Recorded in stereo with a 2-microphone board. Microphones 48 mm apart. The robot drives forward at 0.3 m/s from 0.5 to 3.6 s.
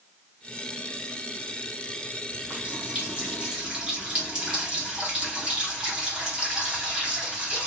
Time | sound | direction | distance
2.3 | a running tap | 25° right (ahead or behind) | 1.1 m